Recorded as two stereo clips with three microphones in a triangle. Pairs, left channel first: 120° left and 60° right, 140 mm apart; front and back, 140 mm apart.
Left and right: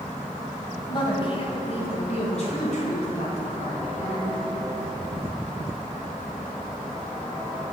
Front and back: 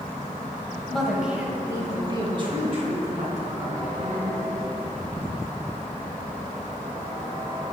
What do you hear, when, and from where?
0.9 s a woman speaking: 80° left, 1.5 m; by 4.4 s 155° left, 3.5 m